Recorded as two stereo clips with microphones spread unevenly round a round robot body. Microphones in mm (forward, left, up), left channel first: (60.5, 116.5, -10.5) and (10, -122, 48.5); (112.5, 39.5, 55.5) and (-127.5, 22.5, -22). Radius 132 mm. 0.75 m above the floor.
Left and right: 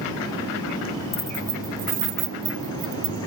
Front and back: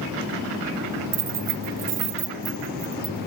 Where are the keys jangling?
150° left; by 3.2 s 105° right.